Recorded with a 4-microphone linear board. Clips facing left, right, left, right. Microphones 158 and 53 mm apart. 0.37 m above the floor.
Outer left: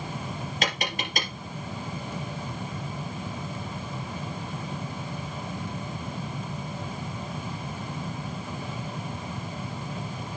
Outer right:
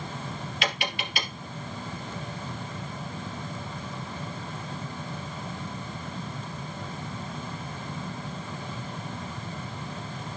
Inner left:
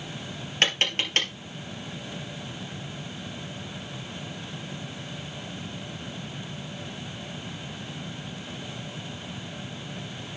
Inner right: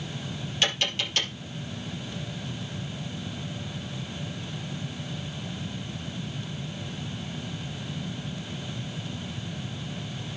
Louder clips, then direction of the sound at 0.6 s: Outer left 1 dB, inner left 3 dB; 45° left (ahead or behind).